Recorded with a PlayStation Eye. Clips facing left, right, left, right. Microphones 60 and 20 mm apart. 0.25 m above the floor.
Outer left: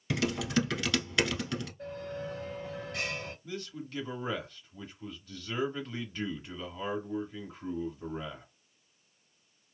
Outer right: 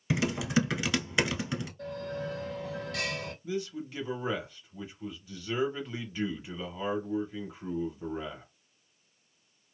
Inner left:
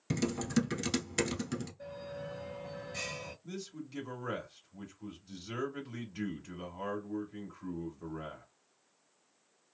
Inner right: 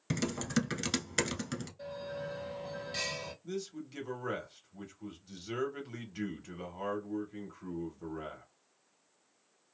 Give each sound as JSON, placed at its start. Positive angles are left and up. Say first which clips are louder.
{"t": 0.1, "sound": "typing on a keyboard", "louder": "outer right 1 dB, inner left 1 dB", "side_deg": -20, "distance_m": 0.9}
{"t": 1.8, "sound": "a bell", "louder": "outer right 2 dB, inner right 3 dB", "side_deg": -75, "distance_m": 1.2}
{"t": 3.4, "sound": "a man speaking", "louder": "outer right 6 dB, inner right 4 dB", "side_deg": -10, "distance_m": 1.0}